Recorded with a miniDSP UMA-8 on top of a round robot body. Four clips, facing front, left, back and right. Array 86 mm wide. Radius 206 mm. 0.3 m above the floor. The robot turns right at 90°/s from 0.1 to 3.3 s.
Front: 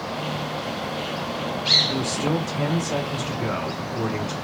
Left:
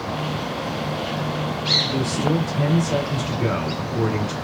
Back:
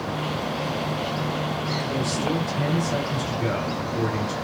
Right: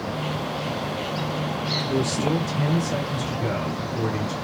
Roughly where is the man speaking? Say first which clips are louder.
Left 1 dB, front 2 dB; ahead right.